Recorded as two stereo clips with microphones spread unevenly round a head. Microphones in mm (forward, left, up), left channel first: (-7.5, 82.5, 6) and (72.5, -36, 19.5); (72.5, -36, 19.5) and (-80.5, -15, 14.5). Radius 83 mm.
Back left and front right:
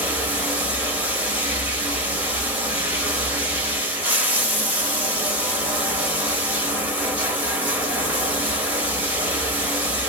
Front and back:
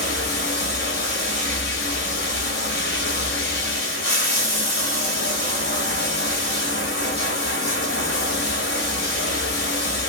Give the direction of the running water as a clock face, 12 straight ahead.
11 o'clock.